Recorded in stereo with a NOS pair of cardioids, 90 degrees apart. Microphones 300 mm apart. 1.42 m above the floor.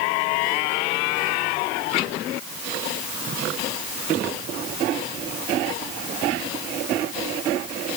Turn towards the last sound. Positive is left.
No sound to turn to.